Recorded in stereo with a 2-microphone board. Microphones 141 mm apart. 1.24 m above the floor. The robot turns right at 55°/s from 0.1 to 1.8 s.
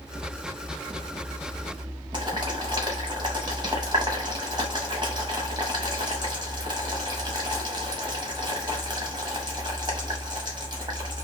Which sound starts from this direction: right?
Boiling, at 2.1 s.